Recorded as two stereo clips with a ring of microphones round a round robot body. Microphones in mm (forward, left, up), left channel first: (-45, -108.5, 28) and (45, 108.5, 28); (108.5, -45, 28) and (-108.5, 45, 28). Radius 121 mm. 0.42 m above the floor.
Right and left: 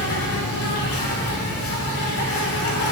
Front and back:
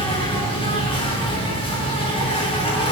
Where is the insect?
90° right, 7 m.